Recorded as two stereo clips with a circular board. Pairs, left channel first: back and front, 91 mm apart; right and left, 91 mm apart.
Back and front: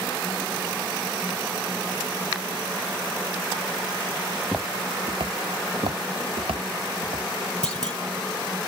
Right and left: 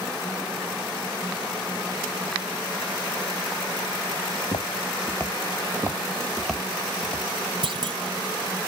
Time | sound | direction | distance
4.3 | footsteps | 105° right | 0.7 m
5.6 | footsteps | 35° left | 0.9 m
7.6 | a clunk | 100° left | 0.8 m